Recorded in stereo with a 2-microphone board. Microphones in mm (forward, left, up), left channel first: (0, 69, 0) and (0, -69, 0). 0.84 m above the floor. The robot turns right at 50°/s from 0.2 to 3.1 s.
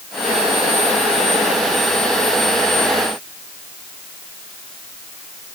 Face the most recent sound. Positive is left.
No sound to turn to.